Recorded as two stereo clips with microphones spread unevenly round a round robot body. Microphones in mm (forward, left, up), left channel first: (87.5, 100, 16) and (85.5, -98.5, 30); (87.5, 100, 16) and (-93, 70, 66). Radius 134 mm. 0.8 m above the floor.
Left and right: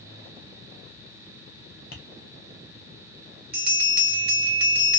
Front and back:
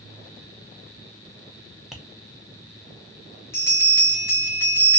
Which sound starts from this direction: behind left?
Tapping, at 1.9 s.